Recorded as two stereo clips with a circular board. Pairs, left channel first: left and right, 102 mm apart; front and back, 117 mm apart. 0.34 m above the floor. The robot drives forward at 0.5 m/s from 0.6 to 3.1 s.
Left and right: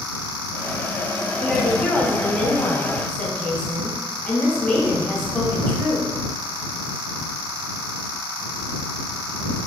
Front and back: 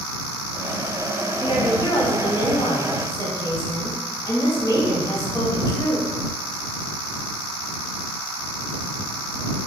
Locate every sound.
1.4 s a woman speaking: 15° left, 1.8 m; by 6.1 s 30° left, 1.2 m